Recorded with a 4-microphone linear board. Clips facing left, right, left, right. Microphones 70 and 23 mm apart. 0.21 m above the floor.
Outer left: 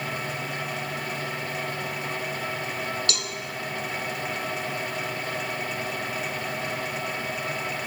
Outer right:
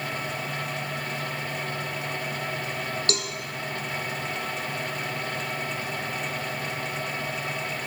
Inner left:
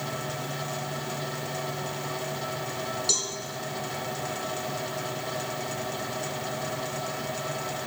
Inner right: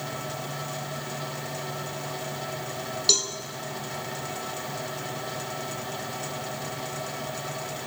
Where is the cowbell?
40° right (ahead or behind), 0.7 m.